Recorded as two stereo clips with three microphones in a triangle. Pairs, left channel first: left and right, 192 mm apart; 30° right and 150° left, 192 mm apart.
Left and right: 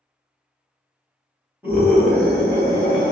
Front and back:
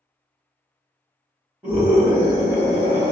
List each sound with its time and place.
1.6 s a scream: 140° right, 1.4 m; by 3.1 s 125° left, 1.6 m